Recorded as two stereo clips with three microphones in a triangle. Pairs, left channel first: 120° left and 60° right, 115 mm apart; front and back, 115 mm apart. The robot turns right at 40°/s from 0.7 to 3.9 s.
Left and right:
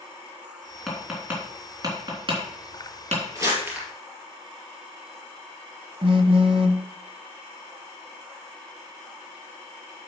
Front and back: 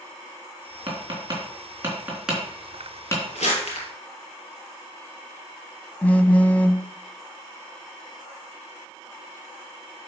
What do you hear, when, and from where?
0.9 s tapping: 155° right, 3.5 m; by 3.2 s 60° right, 3.5 m
3.4 s crumpling: straight ahead, 3.5 m; by 3.9 s 20° left, 3.5 m
6.0 s a phone buzzing: 75° right, 0.7 m